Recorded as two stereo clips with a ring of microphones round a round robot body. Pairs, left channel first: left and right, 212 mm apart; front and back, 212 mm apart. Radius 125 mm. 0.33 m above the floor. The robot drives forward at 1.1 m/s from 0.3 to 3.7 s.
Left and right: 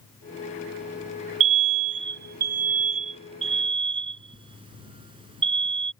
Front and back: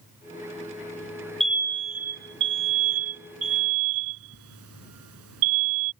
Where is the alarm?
90° right; by 5.9 s 160° right.